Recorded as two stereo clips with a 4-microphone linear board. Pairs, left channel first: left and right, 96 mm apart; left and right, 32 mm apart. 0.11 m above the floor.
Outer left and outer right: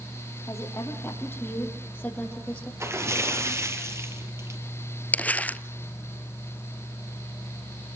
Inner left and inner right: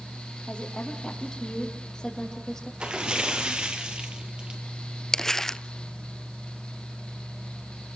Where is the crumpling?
15° left (ahead or behind), 0.7 m.